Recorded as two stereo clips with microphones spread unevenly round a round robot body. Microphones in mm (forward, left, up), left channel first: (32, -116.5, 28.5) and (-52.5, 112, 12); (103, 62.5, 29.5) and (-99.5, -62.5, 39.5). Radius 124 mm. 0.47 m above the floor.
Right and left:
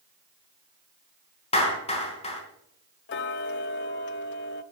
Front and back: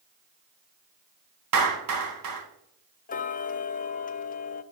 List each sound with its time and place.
1.5 s a clap: 135° right, 3 m
3.1 s ticking: 25° right, 0.6 m